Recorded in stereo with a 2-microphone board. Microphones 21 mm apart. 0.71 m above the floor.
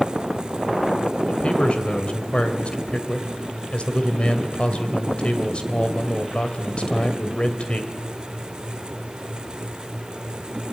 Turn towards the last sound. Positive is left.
turn(degrees=55)  # may be behind; listen again after turning